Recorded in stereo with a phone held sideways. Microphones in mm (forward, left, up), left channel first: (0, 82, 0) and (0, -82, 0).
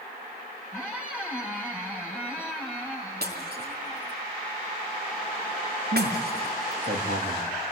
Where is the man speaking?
80° right, 3 m.